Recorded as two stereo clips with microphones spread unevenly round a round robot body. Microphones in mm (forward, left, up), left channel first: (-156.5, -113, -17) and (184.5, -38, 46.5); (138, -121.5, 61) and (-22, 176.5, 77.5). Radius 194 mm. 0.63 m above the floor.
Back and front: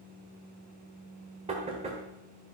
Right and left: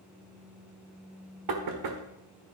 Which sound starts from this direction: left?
Knocking, at 1.5 s.